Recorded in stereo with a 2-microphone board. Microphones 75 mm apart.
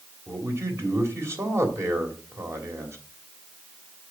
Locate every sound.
0.3 s a man speaking: 40° right (ahead or behind), 3 m